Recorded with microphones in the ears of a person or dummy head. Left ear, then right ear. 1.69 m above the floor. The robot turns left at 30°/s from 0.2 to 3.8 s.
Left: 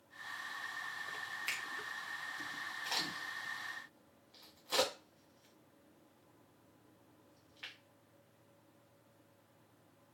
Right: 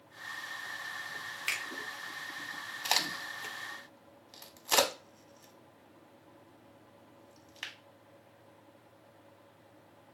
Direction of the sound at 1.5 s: 5° right (ahead or behind).